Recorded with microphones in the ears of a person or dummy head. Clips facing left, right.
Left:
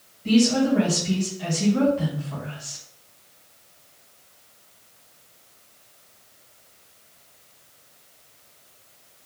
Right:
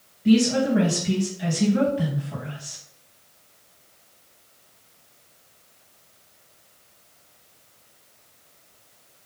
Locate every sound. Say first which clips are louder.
0.2 s a woman speaking: even; 10° right (ahead or behind), 2 m